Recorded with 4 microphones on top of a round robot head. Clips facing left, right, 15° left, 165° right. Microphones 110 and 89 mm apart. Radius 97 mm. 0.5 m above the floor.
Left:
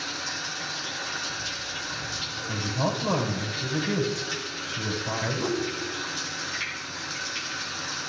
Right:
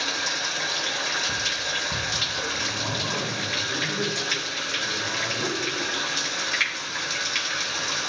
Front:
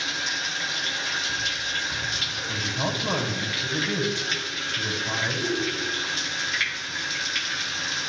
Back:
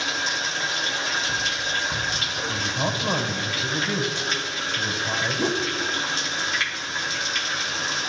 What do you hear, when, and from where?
0.0 s running water: 110° right, 1.1 m
2.5 s a woman speaking: 110° left, 3 m
5.4 s a whoosh: 175° left, 1.5 m